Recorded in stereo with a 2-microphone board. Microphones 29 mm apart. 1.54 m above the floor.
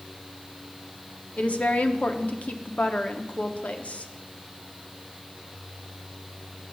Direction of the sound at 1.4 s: 55° left (ahead or behind).